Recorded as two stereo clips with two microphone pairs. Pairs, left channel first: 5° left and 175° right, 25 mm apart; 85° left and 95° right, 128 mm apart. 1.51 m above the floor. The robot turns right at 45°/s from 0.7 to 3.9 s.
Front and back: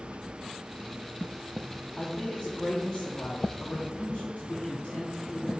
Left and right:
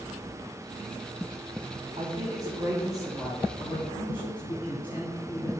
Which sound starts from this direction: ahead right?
A man speaking, at 2.0 s.